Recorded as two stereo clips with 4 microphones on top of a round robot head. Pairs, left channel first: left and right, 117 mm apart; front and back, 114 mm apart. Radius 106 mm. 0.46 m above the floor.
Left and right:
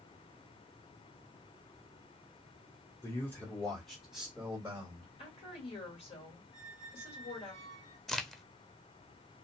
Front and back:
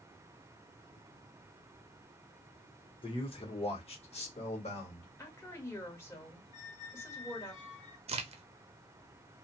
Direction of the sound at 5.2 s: 65° left.